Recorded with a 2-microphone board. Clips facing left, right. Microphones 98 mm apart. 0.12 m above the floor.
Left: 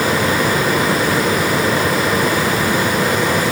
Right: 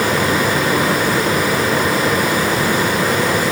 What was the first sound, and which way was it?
Only background noise.